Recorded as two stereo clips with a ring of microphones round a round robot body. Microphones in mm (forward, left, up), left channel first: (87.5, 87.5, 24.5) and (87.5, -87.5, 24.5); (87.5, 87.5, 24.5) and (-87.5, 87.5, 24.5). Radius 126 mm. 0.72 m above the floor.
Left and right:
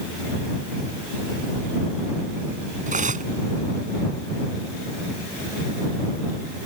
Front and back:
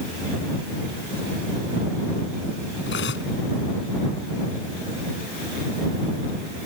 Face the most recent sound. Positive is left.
turn(degrees=-45)